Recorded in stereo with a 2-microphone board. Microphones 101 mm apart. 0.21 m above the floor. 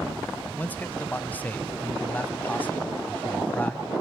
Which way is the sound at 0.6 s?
15° left (ahead or behind).